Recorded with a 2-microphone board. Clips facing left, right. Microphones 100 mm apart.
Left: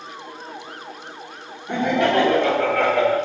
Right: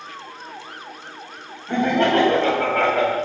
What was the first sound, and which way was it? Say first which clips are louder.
Laughter: right 1 dB; 20° left (ahead or behind).